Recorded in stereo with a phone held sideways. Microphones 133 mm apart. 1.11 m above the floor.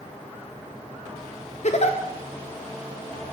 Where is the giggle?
60° left (ahead or behind), 0.6 m.